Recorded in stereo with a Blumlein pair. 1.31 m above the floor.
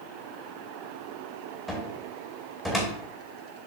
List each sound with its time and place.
1.7 s a cupboard door: 5° left, 1.2 m